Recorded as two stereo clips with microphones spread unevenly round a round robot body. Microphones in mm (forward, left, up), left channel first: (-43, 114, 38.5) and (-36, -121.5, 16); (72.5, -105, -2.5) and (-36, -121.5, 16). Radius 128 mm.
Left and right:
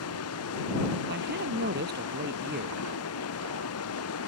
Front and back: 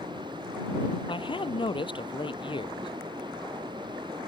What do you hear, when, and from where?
0.0 s running water: 115° left
1.1 s a man speaking: 35° right